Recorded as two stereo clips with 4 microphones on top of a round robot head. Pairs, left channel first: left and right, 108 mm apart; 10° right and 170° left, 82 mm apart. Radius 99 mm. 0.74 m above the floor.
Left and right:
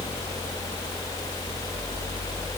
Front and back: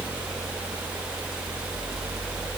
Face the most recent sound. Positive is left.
No sound to turn to.